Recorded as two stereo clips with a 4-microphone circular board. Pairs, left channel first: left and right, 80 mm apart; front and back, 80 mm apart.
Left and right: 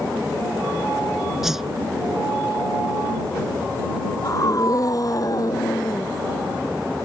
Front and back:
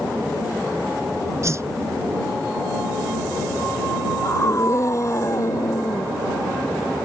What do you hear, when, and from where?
1.4 s a whoosh: 175° right
4.2 s a scream: 50° left